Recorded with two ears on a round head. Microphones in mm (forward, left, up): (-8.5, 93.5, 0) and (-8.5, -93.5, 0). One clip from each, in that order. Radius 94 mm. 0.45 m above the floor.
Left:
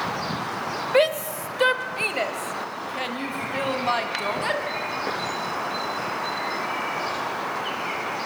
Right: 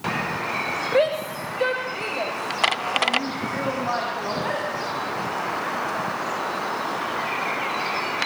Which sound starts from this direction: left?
A shout, at 0.9 s.